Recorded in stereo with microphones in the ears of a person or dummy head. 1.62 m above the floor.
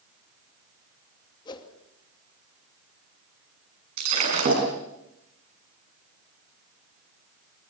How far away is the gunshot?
I don't hear a gunshot.